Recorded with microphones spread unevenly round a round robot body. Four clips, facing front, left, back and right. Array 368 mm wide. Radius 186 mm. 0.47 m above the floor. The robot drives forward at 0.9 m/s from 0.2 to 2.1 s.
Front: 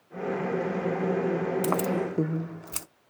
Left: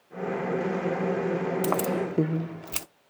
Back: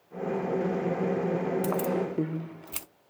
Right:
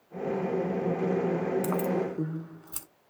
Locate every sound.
1.6 s keys jangling: 40° left, 1.0 m; by 2.9 s 70° left, 0.8 m